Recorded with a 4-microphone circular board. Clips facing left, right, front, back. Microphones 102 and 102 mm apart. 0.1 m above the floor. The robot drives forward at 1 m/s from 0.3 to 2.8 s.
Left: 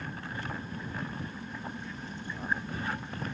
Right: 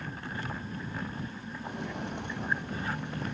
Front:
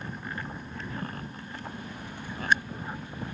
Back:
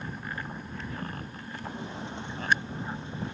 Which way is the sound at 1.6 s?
110° right.